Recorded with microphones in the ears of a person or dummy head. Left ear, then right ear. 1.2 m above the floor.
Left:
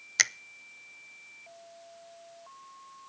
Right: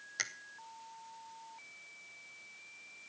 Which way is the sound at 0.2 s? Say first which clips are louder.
Left 13 dB; 50° left (ahead or behind).